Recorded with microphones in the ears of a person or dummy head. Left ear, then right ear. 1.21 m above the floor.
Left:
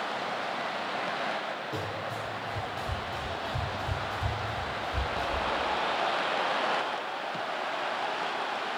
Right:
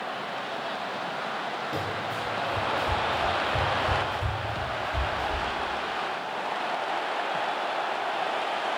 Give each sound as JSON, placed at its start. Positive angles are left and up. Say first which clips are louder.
{"t": 1.7, "sound": "running footsteps", "louder": "right 4 dB", "side_deg": -5, "distance_m": 1.4}